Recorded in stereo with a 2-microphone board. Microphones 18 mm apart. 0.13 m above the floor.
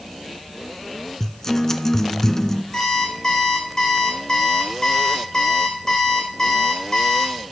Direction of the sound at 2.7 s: 40° left (ahead or behind).